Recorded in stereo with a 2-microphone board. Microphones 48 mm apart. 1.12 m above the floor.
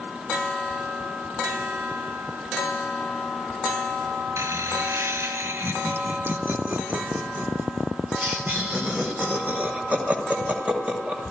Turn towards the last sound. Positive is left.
turn(degrees=-30)  # may be behind; listen again after turning